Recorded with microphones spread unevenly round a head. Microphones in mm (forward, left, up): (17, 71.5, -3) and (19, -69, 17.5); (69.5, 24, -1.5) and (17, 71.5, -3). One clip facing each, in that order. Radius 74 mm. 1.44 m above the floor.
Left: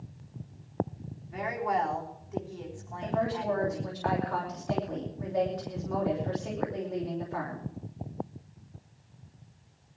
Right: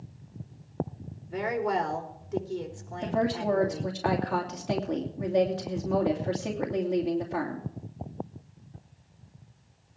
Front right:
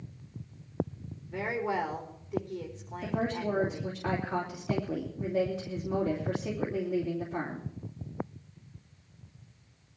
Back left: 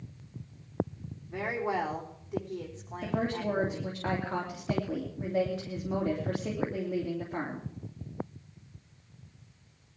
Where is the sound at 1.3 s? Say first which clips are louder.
Right 2 dB, even; 140° right, 3.5 m.